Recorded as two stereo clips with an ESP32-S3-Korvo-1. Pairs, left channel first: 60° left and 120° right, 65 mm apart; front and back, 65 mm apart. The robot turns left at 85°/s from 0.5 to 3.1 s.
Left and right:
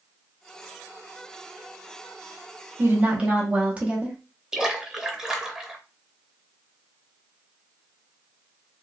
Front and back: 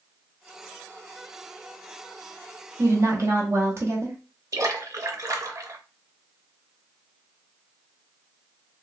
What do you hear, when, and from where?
2.8 s a woman speaking: 155° right, 1.0 m; by 4.2 s straight behind, 1.0 m
4.5 s a splash: 160° left, 0.6 m